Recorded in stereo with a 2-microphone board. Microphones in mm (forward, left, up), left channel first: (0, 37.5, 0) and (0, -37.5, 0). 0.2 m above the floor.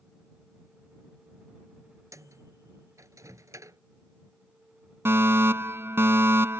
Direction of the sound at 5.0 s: 35° right (ahead or behind).